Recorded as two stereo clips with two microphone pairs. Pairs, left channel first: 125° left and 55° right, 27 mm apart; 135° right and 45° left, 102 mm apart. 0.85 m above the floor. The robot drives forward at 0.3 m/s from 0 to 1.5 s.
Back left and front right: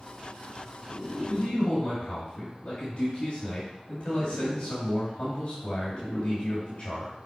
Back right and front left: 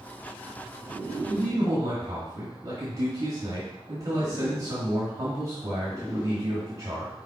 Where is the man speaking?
90° left, 2 m; by 7.1 s 95° left, 2 m.